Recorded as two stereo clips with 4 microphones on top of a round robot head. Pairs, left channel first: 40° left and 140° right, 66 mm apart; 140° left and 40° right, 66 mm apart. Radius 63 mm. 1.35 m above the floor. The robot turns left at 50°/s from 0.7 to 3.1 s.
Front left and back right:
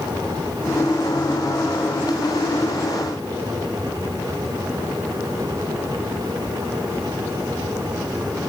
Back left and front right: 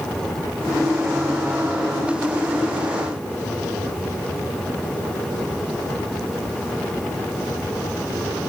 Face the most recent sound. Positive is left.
No sound to turn to.